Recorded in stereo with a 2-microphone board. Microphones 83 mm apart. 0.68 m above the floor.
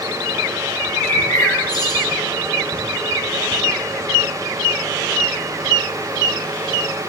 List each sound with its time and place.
0.8 s a bird: 50° left (ahead or behind), 1.6 m